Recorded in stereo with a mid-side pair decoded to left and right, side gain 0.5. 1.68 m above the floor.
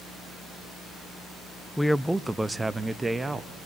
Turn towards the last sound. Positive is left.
turn(degrees=-20)